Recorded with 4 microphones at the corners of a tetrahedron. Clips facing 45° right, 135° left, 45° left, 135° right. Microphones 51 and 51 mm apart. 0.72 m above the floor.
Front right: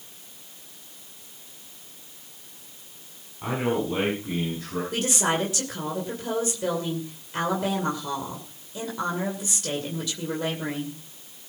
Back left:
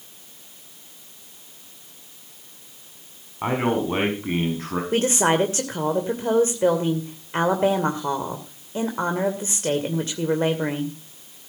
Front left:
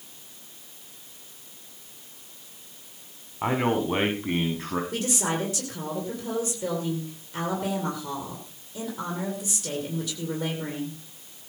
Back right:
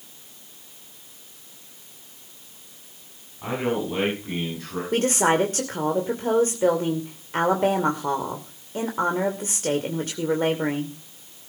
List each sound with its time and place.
3.4 s a man speaking: 90° left, 5 m; by 4.8 s 100° left, 5.5 m
4.9 s a woman speaking: 175° right, 2.5 m